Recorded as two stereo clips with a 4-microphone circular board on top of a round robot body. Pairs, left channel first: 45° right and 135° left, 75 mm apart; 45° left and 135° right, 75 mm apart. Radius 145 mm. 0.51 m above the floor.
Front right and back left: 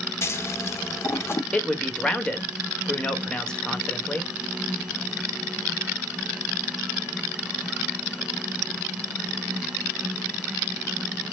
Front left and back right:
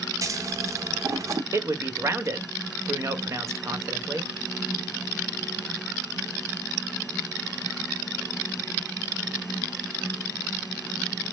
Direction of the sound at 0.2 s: 95° right.